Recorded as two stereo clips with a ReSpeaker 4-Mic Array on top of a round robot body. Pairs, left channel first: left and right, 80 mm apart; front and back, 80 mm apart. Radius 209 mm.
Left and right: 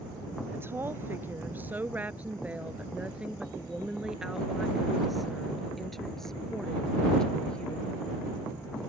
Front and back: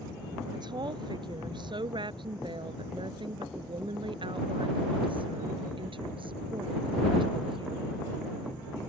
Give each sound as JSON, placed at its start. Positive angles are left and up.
{"t": 0.5, "sound": "a woman speaking", "azimuth_deg": -150}